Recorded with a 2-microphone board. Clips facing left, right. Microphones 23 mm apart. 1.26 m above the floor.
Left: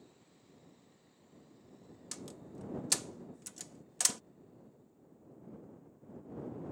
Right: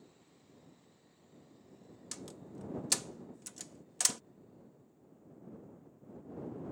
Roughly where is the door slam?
Centre.